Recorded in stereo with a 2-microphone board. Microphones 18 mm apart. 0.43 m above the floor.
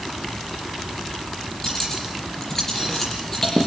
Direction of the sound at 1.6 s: 20° left (ahead or behind).